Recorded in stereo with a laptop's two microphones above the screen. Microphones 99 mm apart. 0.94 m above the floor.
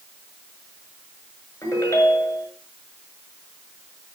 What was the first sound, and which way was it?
A ringtone, 30° left (ahead or behind).